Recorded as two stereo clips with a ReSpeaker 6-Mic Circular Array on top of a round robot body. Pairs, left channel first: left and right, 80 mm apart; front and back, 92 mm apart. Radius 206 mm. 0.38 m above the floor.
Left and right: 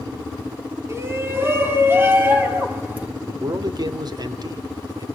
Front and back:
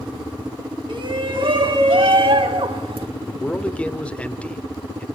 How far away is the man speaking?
About 2 m.